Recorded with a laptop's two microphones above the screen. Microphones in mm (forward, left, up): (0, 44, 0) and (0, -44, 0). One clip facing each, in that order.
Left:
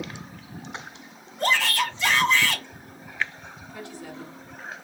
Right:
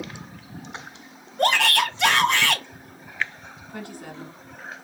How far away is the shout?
About 0.8 m.